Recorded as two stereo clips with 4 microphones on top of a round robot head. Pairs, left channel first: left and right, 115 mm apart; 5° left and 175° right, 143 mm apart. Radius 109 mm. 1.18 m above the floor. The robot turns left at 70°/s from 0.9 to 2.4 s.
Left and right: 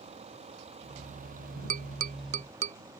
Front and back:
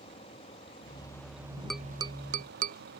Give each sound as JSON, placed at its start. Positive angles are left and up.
{"t": 0.0, "sound": "a vehicle", "azimuth_deg": -55}
{"t": 1.7, "sound": "tapping", "azimuth_deg": -85}